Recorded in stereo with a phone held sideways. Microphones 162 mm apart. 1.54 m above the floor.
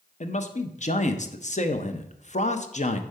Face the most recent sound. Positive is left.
turn(degrees=45)  # may be behind; listen again after turning